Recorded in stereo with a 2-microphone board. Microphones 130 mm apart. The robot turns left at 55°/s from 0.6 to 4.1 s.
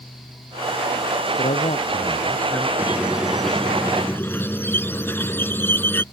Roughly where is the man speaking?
Left.